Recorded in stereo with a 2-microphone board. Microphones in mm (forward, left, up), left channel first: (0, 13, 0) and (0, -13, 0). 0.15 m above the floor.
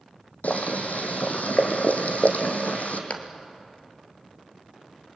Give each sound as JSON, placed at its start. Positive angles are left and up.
{"t": 0.4, "sound": "boiling", "side_deg": 80, "distance_m": 2.5}
{"t": 3.1, "sound": "a clap", "side_deg": 60, "distance_m": 2.0}